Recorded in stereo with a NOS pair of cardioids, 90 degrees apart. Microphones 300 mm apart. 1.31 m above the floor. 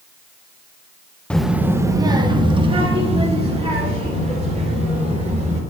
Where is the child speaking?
5° left, 0.5 m; by 5.6 s 25° right, 3.5 m.